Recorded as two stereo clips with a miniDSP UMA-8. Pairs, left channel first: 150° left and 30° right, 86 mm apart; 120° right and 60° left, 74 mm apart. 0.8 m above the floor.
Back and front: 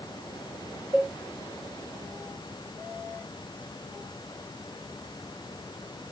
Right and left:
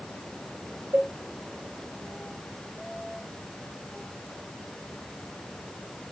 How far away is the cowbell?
About 1.2 m.